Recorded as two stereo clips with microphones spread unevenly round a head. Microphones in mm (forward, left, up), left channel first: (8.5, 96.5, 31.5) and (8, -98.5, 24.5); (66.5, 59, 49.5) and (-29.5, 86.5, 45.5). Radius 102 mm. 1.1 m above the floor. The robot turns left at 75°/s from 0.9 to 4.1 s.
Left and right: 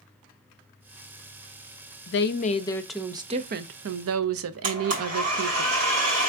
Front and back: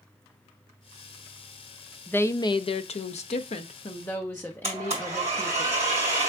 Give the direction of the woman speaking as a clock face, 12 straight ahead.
10 o'clock.